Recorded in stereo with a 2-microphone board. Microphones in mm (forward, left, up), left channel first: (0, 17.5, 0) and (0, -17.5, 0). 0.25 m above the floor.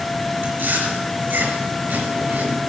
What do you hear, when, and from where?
0.4 s chewing: 70° right (ahead or behind), 4 m